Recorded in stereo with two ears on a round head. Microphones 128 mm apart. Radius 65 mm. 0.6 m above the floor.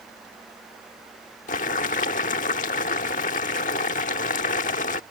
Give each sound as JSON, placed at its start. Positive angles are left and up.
{"t": 1.5, "sound": "boiling", "side_deg": 60}